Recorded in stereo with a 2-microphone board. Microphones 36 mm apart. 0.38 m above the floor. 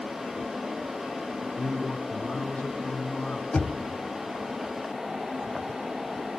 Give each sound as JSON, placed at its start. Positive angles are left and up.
{"t": 1.6, "sound": "a man speaking", "side_deg": 30, "distance_m": 3.0}
{"t": 3.5, "sound": "knocking", "side_deg": 35, "distance_m": 1.5}